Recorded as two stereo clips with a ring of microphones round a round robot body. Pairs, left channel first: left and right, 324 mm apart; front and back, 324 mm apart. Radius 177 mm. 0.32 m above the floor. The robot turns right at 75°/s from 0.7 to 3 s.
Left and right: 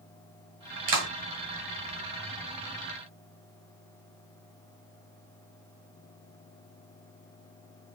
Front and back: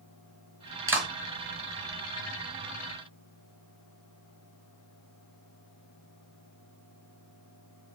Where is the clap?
100° right, 2 m; by 1.1 s 85° right, 2 m.